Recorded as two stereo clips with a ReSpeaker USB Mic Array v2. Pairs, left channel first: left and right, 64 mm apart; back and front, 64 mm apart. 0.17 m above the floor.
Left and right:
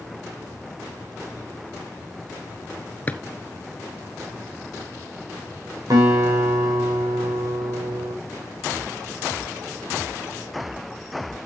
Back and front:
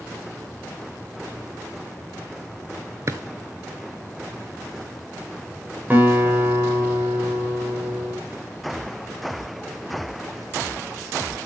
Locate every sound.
3.1 s a drawer: 30° left, 0.9 m
5.9 s a guitar: 60° right, 8 m